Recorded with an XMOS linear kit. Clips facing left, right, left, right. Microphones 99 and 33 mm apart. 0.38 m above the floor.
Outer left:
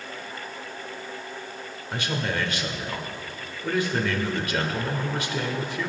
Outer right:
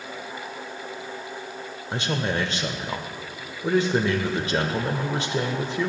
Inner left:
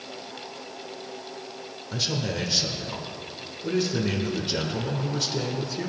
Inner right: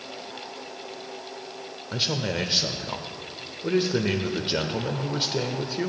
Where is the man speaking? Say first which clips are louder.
Outer right 2 dB, inner right 2 dB; 25° right (ahead or behind), 0.8 m.